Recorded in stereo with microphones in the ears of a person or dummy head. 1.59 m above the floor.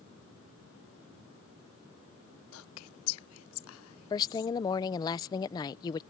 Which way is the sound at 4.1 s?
20° left (ahead or behind).